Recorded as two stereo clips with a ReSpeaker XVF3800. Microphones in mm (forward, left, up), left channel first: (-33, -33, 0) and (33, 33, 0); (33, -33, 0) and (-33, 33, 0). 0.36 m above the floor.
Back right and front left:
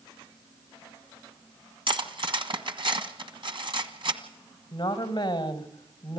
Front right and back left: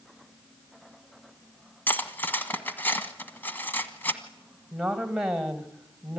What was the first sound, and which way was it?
Cutlery clinking, 25° left.